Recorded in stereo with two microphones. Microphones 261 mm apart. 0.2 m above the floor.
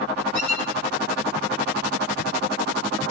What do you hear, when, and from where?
0.3 s a squeak: 75° right (ahead or behind), 3 m